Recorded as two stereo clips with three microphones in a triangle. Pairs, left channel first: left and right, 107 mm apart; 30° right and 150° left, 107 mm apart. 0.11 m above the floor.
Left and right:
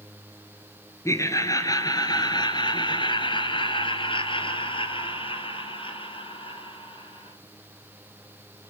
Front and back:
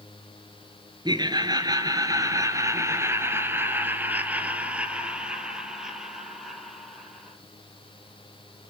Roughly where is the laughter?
Behind left.